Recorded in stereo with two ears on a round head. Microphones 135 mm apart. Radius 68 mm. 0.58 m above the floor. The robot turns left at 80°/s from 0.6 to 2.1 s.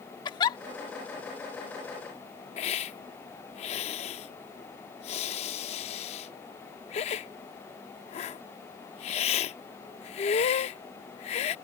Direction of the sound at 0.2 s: 30° left (ahead or behind).